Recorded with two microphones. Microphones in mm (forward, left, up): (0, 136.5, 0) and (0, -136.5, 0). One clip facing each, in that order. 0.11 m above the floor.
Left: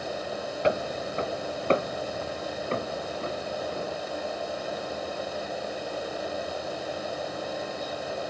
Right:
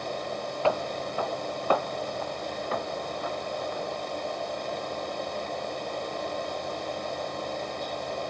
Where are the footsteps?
20° left (ahead or behind); by 4.0 s 35° left (ahead or behind).